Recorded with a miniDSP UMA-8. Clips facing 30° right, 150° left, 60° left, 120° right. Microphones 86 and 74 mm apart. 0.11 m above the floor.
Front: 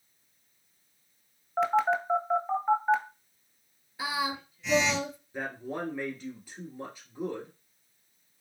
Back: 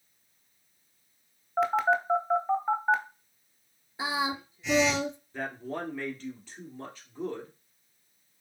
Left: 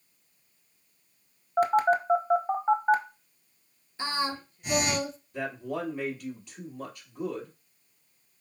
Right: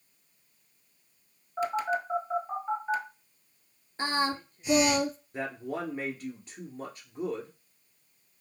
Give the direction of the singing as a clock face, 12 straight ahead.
5 o'clock.